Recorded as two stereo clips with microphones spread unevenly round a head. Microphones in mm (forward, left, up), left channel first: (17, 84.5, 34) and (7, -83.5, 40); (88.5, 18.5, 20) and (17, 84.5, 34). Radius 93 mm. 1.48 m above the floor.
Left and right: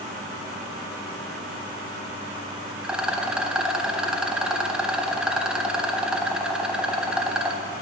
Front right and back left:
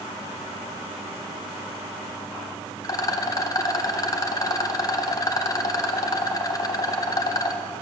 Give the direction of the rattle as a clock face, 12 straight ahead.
1 o'clock.